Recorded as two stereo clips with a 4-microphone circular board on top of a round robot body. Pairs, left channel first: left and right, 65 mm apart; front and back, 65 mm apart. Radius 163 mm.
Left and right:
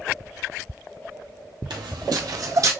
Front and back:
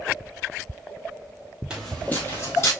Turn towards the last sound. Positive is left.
turn(degrees=-50)